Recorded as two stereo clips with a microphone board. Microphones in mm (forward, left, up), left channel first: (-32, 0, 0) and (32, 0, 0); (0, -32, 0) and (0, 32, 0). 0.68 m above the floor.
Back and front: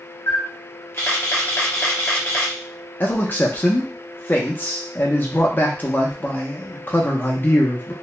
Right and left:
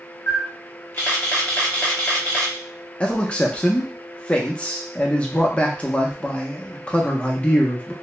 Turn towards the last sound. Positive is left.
turn(degrees=-150)